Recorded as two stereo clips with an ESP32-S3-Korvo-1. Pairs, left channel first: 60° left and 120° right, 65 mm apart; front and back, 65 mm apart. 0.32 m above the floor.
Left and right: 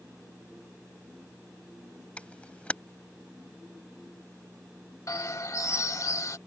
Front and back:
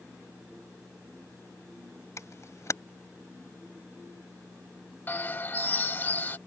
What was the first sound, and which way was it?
A camera shutter, 5° right.